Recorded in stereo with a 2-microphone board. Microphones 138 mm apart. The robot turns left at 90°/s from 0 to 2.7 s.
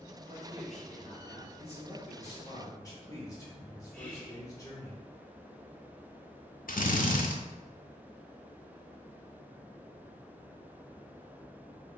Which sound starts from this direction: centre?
Whispering, at 3.9 s.